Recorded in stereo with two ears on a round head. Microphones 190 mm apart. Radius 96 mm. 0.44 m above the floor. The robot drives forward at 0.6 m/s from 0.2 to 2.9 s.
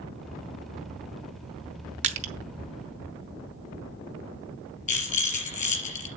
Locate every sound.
2.0 s crushing: 35° right (ahead or behind), 1.2 m; by 2.3 s 30° right (ahead or behind), 1.3 m
4.9 s a rattle: 35° left (ahead or behind), 2.5 m